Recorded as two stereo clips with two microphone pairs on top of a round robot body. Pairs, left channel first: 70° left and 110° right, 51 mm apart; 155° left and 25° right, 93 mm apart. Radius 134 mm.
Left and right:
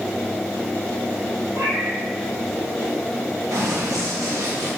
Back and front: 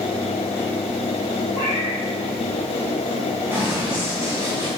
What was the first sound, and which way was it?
A cat meowing, 100° right.